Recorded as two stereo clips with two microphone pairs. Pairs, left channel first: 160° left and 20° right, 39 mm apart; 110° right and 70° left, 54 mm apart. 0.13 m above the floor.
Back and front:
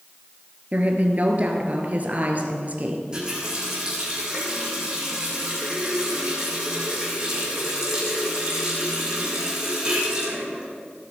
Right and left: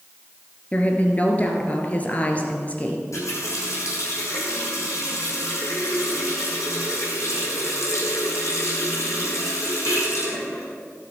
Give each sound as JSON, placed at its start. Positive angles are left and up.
{"t": 0.7, "sound": "a woman speaking", "azimuth_deg": -55, "distance_m": 1.7}
{"t": 3.1, "sound": "a running tap", "azimuth_deg": -90, "distance_m": 4.0}